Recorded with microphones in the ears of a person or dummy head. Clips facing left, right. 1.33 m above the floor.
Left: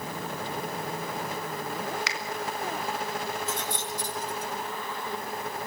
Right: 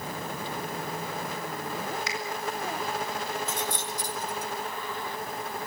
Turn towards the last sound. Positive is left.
turn(degrees=-10)  # may be behind; listen again after turning